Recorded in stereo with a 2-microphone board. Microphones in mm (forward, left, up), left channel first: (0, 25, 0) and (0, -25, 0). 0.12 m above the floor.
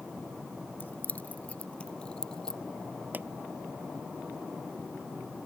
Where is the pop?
35° right (ahead or behind).